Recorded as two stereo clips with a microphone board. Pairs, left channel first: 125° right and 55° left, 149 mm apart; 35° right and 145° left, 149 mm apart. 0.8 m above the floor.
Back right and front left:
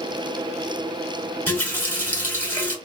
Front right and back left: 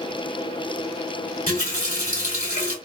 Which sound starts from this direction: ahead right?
A running tap, at 1.5 s.